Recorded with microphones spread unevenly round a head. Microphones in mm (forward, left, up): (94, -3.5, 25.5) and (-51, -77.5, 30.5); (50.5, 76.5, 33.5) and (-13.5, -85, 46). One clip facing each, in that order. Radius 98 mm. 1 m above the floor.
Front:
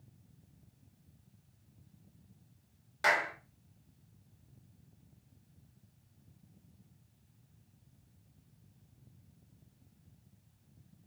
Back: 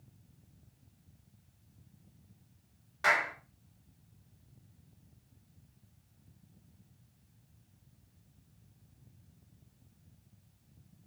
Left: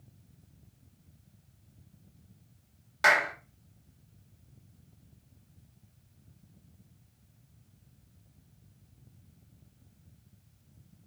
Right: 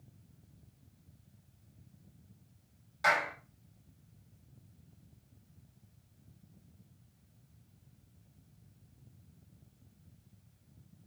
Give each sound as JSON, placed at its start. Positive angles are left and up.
{"t": 3.0, "sound": "a clap", "azimuth_deg": 85, "distance_m": 2.0}